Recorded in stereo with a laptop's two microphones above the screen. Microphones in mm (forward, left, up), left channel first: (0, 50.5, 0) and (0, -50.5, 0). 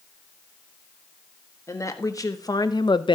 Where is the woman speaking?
30° left (ahead or behind), 1.6 m; by 3.2 s 55° left (ahead or behind), 0.6 m.